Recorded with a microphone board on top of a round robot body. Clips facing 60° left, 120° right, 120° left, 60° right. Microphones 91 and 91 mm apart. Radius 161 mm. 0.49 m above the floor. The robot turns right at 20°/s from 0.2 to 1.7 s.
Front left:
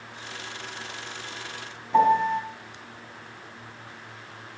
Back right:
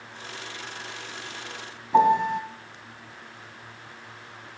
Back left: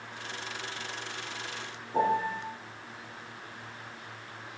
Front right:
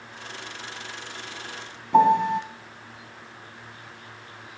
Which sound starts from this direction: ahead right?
A piano, at 1.9 s.